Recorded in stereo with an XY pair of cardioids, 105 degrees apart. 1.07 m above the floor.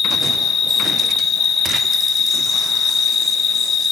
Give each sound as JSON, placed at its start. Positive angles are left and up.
{"t": 0.0, "sound": "an insect", "azimuth_deg": 50, "distance_m": 1.0}